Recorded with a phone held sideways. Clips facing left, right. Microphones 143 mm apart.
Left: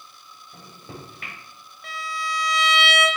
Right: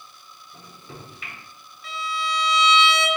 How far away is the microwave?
About 1.3 m.